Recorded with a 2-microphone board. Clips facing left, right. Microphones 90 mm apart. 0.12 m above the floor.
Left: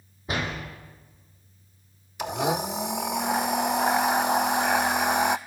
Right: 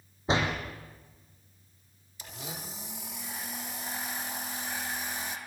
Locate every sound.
0.3 s a door slam: 25° right (ahead or behind), 4.5 m
2.2 s a blender: 75° left (ahead or behind), 0.9 m